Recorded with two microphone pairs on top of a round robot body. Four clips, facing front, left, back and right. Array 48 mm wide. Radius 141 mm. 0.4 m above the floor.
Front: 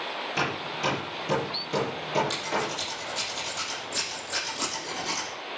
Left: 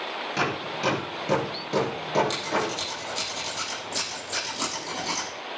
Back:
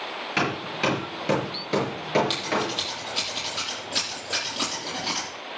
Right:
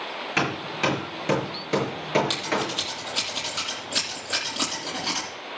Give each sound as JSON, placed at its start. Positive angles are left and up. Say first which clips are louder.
{"t": 0.4, "sound": "hammering", "louder": "right 3 dB, back 4 dB", "azimuth_deg": -125, "distance_m": 5.5}
{"t": 2.3, "sound": "scissors", "louder": "even, back 3 dB", "azimuth_deg": -120, "distance_m": 8.5}